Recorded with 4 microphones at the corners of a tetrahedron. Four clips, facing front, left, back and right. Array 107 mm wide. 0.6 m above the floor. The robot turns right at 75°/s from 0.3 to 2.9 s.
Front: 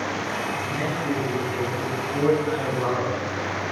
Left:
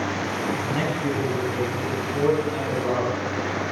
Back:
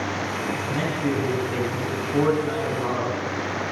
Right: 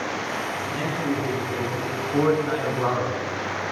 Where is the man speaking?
115° left, 6.5 m; by 3.6 s 75° right, 6.5 m.